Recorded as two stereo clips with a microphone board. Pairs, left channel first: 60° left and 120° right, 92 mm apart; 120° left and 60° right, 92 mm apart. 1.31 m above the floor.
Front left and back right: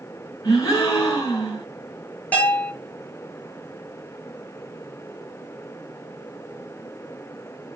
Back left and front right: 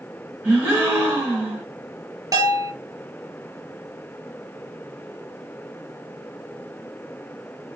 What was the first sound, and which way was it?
A gasp, 5° left.